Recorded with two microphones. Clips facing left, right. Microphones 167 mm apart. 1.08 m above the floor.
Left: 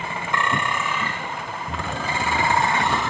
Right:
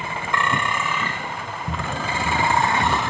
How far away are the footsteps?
About 1.6 m.